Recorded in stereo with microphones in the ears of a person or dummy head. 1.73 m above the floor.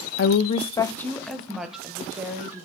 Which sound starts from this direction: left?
A woman speaking, at 0.2 s.